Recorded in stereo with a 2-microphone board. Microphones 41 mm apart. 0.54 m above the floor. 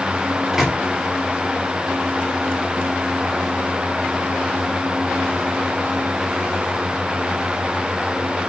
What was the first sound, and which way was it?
A microwave, 10° right (ahead or behind).